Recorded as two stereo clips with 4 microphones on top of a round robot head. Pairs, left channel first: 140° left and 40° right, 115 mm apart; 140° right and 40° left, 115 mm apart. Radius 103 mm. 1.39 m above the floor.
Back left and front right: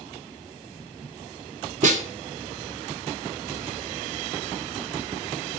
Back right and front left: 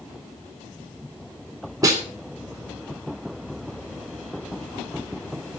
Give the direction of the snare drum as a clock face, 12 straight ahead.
1 o'clock.